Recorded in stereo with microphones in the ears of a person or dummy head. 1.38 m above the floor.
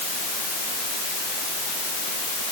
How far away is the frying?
I don't hear frying.